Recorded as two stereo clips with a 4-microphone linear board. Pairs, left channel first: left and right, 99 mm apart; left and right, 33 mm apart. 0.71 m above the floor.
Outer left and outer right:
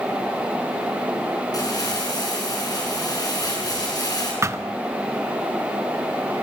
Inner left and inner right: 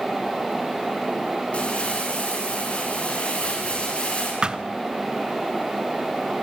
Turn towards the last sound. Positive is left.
turn(degrees=-30)  # may be behind; listen again after turning